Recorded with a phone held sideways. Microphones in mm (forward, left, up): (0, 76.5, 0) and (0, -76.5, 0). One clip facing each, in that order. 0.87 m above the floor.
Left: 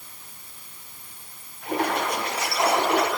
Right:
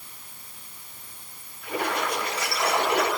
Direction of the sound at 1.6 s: 70° left (ahead or behind).